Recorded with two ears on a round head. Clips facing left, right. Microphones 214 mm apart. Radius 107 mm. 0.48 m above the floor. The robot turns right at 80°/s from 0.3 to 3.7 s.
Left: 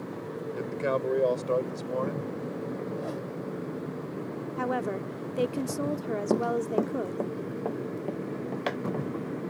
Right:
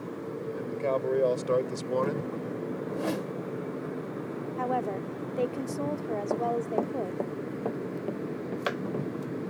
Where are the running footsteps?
40° left (ahead or behind); by 9.1 s 15° right (ahead or behind).